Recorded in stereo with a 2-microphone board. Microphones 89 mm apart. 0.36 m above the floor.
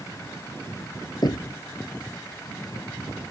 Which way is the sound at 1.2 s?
50° left (ahead or behind).